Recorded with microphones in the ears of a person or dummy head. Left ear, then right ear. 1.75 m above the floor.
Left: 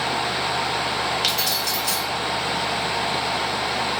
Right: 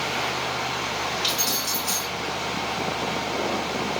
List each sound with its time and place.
1.2 s keys jangling: 45° left (ahead or behind), 1.7 m